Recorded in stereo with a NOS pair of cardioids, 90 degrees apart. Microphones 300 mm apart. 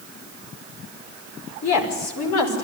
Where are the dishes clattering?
I don't hear dishes clattering.